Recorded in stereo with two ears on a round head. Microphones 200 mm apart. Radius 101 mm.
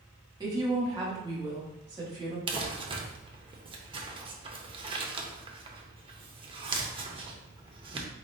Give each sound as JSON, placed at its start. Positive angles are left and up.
{"t": 0.4, "sound": "a woman speaking", "side_deg": -20, "distance_m": 1.4}
{"t": 2.5, "sound": "crumpling", "side_deg": -25, "distance_m": 0.6}